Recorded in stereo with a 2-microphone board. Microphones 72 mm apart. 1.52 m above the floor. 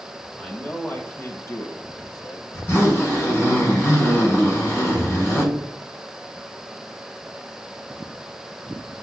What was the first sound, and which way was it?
A man speaking, 15° left (ahead or behind).